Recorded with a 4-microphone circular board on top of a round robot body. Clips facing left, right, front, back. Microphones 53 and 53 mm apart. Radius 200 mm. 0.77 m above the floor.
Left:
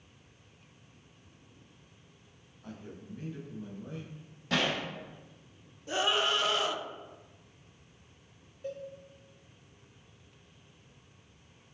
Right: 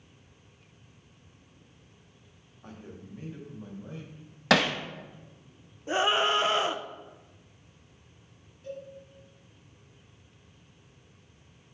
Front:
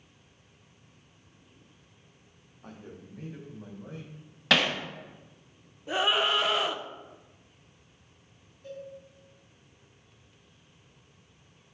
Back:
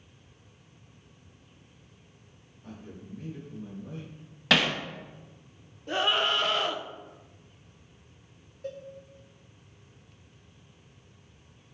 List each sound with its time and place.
2.6 s a man speaking: 30° right, 2 m; by 4.3 s 15° right, 4 m
4.5 s hammering: 90° right, 0.7 m
5.9 s a scream: 75° right, 0.8 m
8.6 s a cowbell: 145° left, 1.0 m